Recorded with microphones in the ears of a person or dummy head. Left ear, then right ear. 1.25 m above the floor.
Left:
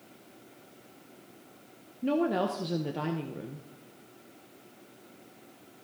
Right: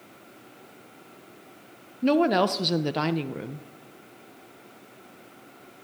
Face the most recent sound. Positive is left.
turn(degrees=-45)  # may be behind; listen again after turning